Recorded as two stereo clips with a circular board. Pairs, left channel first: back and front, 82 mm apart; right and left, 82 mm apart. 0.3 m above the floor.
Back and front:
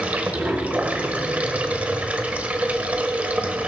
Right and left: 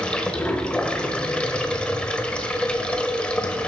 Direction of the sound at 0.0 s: 40° right.